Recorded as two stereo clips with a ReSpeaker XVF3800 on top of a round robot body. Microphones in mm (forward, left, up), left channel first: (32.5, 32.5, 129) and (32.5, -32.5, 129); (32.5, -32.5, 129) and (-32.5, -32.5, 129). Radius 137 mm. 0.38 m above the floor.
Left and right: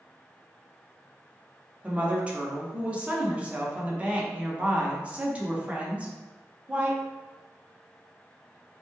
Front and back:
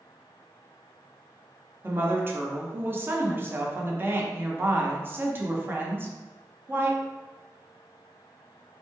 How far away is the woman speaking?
About 0.9 m.